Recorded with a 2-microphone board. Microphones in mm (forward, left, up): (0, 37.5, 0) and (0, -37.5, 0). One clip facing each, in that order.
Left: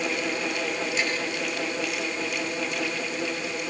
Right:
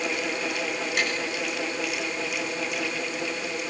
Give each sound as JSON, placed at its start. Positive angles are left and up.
{"t": 1.0, "sound": "tapping", "side_deg": -55, "distance_m": 7.5}